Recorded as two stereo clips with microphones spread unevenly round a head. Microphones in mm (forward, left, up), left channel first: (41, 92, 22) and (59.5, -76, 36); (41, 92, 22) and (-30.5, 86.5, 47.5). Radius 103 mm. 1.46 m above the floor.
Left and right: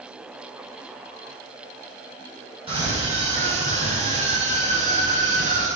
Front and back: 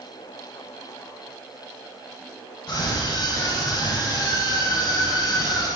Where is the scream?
25° right, 8.5 m; by 5.7 s 45° right, 8 m.